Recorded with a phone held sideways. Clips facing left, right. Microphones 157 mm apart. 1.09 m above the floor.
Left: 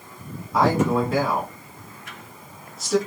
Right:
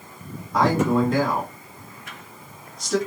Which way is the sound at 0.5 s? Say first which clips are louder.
Even; 5° left (ahead or behind).